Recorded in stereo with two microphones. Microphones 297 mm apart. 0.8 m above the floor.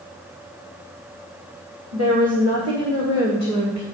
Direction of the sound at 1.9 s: 75° right (ahead or behind).